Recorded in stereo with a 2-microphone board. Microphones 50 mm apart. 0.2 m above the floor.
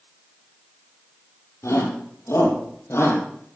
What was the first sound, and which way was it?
A shout, 75° left (ahead or behind).